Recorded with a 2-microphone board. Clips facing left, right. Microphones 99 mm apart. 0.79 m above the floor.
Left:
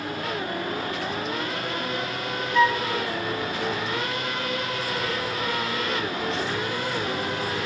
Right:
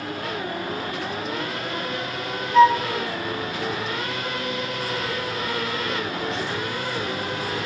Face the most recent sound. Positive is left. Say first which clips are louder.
# right 7 dB
turn(degrees=-35)  # may be behind; listen again after turning